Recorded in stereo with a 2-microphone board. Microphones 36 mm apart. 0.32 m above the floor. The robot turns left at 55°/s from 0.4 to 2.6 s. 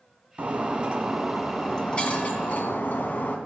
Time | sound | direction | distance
0.4 | breaking glass | 125° right | 1.6 m